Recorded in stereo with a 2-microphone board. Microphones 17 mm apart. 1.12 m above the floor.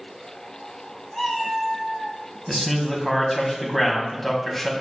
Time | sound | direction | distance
1.1 | a cat meowing | 5° left (ahead or behind) | 1.0 m
2.5 | a man speaking | 15° left (ahead or behind) | 0.8 m